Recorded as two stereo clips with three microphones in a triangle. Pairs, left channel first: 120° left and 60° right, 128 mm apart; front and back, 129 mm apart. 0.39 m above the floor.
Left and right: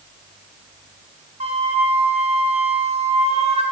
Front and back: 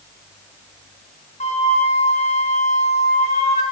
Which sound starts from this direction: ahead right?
A flute, at 1.4 s.